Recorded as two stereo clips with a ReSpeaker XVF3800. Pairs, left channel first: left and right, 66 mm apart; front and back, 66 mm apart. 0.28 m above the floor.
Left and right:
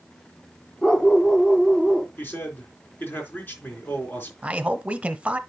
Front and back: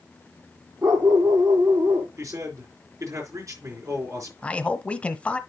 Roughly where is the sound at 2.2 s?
Behind left.